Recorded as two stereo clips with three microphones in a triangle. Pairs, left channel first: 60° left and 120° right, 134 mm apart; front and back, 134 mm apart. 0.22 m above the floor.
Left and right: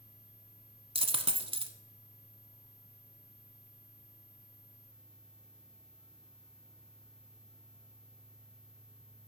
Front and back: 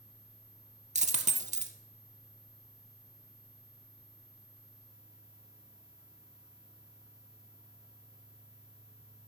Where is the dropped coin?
160° right, 0.8 m.